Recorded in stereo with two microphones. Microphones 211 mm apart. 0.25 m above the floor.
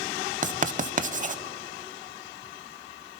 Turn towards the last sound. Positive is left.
turn(degrees=-35)  # may be behind; listen again after turning